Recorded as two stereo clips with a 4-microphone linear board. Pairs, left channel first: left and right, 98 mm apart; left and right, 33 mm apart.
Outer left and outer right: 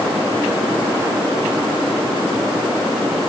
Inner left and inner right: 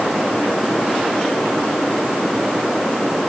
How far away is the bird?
No bird in this recording.